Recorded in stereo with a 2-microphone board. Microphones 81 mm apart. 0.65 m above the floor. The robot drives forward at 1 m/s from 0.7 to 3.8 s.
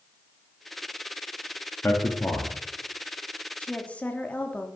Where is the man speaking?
25° left (ahead or behind), 1.1 m.